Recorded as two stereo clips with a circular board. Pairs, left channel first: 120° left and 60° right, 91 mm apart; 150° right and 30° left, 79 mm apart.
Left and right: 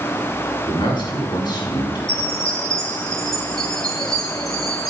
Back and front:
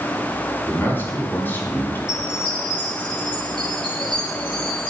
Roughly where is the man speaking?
Behind left.